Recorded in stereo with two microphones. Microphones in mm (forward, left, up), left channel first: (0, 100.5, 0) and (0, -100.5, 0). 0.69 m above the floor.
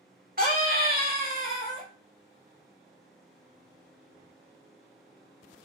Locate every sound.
0.4 s a scream: 45° right (ahead or behind), 1.7 m